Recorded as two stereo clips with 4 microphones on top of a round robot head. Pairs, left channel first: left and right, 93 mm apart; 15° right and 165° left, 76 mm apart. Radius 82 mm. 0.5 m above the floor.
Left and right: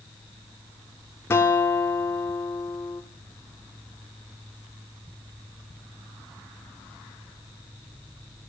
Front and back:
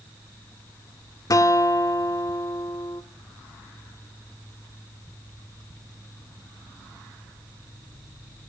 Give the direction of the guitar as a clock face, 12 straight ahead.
11 o'clock.